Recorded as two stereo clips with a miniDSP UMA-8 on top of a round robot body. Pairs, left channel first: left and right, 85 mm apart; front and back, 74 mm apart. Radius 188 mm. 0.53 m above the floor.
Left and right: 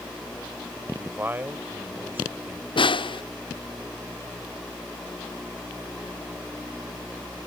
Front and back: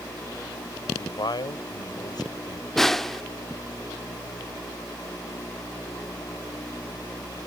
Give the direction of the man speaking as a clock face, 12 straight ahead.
1 o'clock.